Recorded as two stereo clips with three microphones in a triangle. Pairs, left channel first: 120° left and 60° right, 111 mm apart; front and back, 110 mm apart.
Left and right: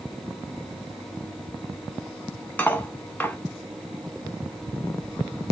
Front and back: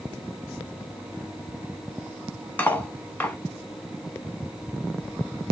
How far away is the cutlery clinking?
About 0.7 m.